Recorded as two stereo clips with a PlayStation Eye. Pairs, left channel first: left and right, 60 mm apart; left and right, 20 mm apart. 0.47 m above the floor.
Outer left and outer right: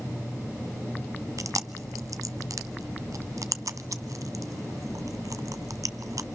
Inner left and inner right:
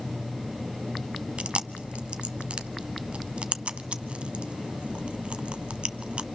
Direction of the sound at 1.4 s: 65° right (ahead or behind).